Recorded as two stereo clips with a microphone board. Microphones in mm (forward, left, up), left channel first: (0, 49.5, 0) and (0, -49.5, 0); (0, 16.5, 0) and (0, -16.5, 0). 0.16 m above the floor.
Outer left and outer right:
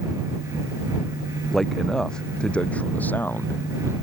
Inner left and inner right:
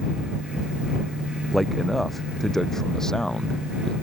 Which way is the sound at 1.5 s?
Centre (ahead or behind).